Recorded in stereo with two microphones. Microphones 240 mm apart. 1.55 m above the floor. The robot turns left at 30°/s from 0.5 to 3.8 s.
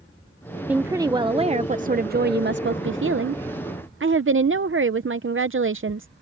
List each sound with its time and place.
0.7 s a woman speaking: 5° right; by 6.1 s 100° right